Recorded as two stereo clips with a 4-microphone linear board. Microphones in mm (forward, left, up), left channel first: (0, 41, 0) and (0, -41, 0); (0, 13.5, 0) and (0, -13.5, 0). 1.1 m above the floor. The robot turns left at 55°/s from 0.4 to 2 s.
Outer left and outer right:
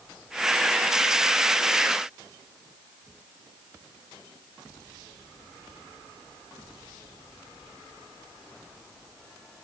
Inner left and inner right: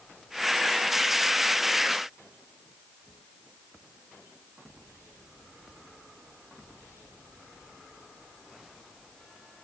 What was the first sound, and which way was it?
Only background noise.